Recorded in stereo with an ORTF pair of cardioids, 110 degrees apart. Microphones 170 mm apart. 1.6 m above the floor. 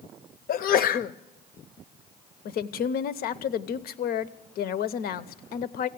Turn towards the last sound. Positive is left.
turn(degrees=60)